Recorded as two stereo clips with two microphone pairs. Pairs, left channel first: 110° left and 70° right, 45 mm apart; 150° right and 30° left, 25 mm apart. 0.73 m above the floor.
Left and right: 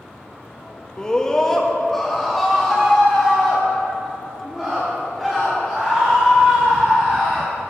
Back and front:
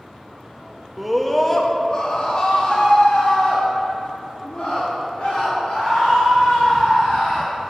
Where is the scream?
95° left, 0.7 m; by 7.5 s 155° right, 3.5 m.